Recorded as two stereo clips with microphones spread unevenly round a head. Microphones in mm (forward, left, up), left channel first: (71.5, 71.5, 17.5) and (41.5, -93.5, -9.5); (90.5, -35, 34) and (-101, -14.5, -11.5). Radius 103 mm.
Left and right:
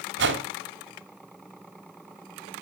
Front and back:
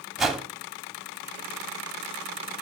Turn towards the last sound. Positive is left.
turn(degrees=-100)